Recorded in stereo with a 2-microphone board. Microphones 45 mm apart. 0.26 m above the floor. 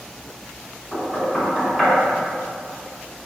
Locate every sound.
0.9 s knocking: 5° right (ahead or behind), 1.7 m